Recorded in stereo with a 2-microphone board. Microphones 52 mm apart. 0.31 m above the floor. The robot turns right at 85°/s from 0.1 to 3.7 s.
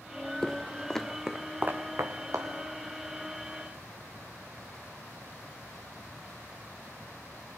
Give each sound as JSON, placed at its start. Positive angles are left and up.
{"t": 0.4, "sound": "footsteps", "side_deg": 10, "distance_m": 0.6}